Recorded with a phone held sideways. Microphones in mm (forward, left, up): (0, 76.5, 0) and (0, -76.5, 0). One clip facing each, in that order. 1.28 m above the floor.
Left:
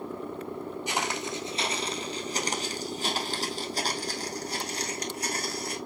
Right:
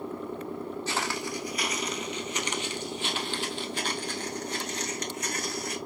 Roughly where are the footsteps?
Centre.